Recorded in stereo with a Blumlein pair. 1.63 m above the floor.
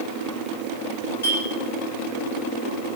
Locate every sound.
1.2 s a clink: 65° left, 2 m